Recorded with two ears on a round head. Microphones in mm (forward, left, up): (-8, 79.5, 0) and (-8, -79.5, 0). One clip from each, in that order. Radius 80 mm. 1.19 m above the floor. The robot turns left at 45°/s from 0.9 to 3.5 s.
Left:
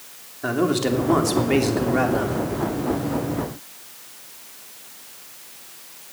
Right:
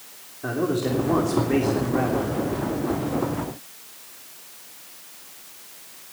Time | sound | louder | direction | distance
0.4 | a man speaking | left 3 dB | 100° left | 3 m